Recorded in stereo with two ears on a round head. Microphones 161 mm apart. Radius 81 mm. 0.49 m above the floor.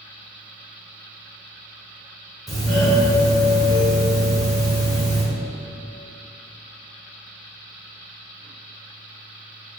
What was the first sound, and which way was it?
A doorbell, centre (ahead or behind).